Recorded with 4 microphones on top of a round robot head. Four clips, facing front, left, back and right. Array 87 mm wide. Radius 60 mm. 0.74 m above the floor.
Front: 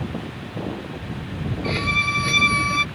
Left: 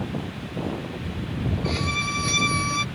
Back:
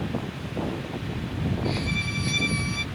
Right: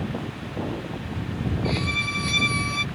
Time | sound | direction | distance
1.6 | a violin | 25° left | ?